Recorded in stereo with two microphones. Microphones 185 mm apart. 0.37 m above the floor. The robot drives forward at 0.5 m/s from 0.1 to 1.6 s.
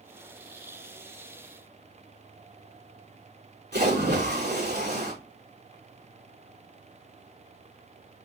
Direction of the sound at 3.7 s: 70° right (ahead or behind).